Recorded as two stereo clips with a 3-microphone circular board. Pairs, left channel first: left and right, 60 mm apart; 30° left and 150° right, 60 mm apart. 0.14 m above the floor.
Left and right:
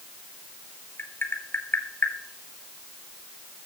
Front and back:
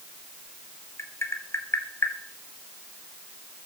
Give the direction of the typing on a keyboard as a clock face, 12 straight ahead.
I don't hear typing on a keyboard.